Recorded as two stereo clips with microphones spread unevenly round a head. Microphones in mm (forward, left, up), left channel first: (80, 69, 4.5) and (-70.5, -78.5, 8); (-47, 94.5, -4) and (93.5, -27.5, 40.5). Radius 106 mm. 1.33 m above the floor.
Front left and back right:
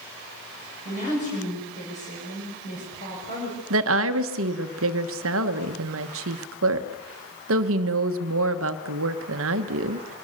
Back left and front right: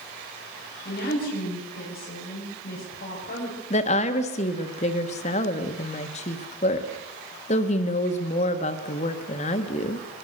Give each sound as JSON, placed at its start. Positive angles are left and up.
{"t": 0.8, "sound": "a woman speaking", "azimuth_deg": 100, "distance_m": 6.5}
{"t": 3.7, "sound": "a woman speaking", "azimuth_deg": -165, "distance_m": 1.3}